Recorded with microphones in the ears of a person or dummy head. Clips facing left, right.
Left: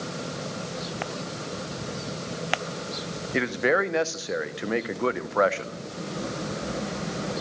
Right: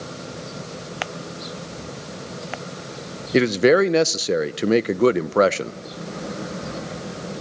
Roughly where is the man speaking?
Right.